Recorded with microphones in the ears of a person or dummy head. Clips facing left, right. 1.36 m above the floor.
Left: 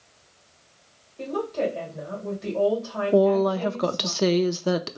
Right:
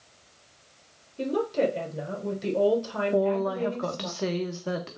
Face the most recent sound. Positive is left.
turn(degrees=60)  # may be behind; listen again after turning